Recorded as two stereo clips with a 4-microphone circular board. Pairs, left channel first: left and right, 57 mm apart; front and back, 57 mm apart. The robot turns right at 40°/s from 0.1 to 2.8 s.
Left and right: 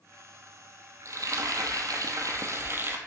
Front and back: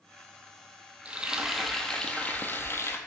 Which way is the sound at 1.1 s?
115° right.